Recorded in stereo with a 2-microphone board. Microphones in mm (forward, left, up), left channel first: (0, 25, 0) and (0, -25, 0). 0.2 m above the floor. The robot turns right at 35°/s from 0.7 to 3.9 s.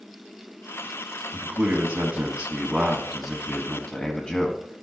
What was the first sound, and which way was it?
A man speaking, 65° right.